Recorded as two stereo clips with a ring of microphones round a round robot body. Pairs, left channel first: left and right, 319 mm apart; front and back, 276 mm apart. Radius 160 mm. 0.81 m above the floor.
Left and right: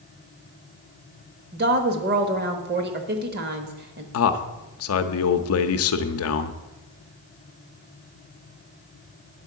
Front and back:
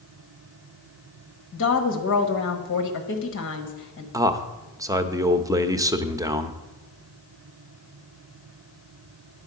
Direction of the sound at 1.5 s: 35° right.